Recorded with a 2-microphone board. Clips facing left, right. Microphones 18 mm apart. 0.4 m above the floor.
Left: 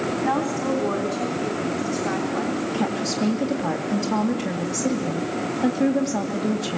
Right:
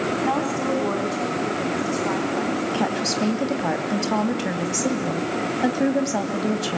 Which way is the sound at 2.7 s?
30° right (ahead or behind).